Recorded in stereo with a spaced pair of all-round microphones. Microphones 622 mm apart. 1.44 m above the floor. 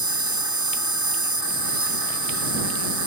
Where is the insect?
30° right (ahead or behind).